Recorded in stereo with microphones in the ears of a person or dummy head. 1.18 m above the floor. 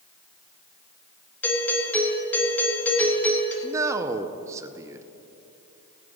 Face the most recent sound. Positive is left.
turn(degrees=-15)  # may be behind; listen again after turning